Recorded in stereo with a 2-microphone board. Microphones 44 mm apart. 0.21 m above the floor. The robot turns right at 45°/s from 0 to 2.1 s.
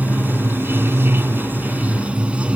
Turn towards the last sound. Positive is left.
turn(degrees=-35)